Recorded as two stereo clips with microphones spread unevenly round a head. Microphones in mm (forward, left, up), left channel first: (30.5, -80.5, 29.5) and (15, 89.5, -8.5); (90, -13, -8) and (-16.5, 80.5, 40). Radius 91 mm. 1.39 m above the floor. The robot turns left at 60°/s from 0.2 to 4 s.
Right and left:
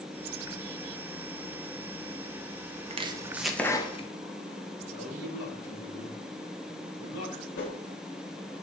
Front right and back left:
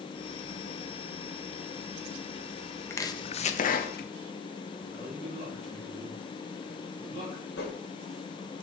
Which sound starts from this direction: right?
A man speaking, at 4.9 s.